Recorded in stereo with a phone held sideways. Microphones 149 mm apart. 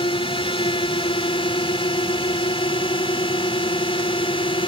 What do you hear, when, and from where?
0.0 s a drone: 40° left (ahead or behind)